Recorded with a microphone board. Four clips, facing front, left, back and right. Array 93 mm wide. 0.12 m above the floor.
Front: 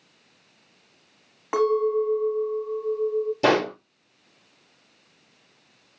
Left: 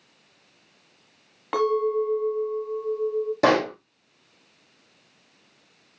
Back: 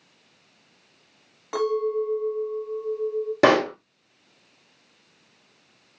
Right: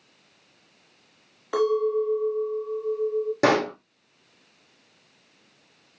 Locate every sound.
1.5 s a clink: 55° left, 1.8 m
3.4 s a pop: 170° right, 4 m